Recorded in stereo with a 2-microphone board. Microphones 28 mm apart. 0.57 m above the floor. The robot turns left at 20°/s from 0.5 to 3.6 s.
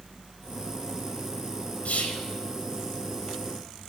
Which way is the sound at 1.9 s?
70° left (ahead or behind).